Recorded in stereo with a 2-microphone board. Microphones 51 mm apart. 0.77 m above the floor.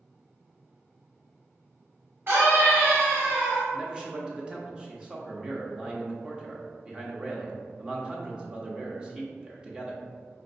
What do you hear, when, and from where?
2.3 s a scream: 50° right (ahead or behind), 1.3 m; by 3.6 s 25° right (ahead or behind), 0.9 m
3.7 s a man speaking: 20° right (ahead or behind), 0.9 m